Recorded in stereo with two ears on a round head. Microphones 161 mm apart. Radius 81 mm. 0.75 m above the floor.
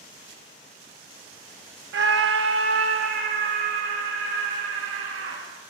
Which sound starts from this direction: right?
A scream, at 1.9 s.